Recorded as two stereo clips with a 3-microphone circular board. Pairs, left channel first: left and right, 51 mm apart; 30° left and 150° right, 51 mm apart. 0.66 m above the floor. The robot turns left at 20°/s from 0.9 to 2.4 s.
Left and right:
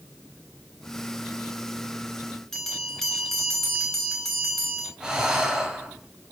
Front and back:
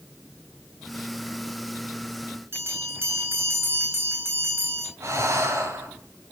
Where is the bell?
170° left, 3.5 m.